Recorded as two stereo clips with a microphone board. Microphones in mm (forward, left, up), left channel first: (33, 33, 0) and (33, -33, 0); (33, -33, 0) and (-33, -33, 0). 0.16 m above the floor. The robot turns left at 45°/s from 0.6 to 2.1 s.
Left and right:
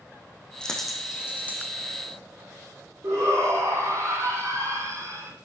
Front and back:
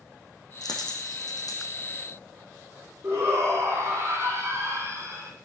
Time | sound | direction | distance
0.6 | a dropped coin | 15° left | 3.5 m
3.0 | a shout | 130° right | 5.5 m